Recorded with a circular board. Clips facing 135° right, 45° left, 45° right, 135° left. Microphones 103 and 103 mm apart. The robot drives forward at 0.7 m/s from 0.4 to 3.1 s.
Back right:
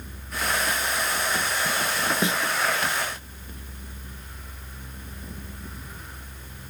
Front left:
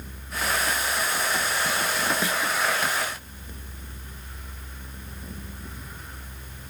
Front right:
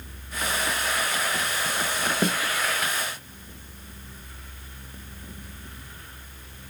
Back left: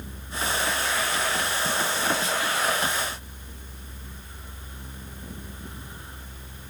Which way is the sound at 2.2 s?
70° right.